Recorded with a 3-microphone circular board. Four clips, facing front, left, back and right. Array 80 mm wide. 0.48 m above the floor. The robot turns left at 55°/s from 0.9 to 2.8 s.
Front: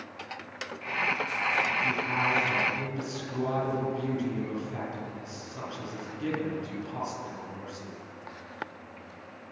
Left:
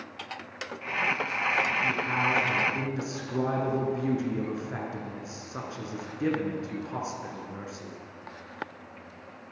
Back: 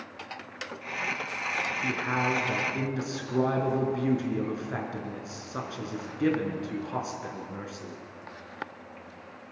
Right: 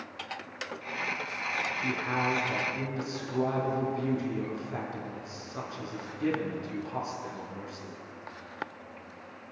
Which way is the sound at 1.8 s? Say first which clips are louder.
Left 2 dB, even; 145° right.